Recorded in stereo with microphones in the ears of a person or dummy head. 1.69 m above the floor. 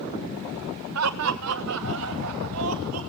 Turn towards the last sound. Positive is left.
turn(degrees=-85)